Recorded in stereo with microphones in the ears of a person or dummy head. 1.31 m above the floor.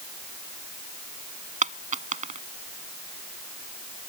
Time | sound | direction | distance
1.6 | a dropped coin | 45° right (ahead or behind) | ?